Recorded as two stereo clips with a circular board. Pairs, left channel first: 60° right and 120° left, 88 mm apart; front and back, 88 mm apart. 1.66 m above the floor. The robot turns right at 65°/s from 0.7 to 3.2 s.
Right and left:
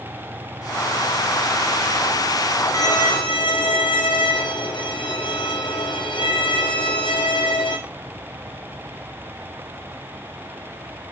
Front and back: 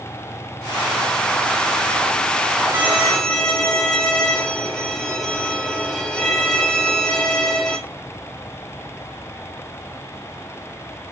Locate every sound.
2.7 s a violin: 115° right, 0.6 m; by 7.8 s 85° right, 0.6 m